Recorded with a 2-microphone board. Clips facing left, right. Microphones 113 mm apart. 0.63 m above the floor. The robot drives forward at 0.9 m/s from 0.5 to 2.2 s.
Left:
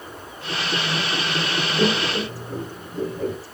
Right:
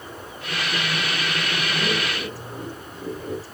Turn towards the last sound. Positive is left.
turn(degrees=65)  # may be behind; listen again after turning